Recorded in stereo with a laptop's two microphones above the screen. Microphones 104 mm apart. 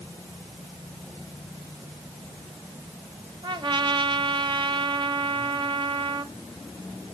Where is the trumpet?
55° right (ahead or behind), 1.1 m.